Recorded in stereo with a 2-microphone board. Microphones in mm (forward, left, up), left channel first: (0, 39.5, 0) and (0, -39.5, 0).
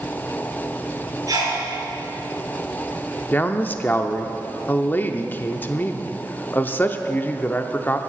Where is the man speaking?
25° left (ahead or behind), 0.7 m.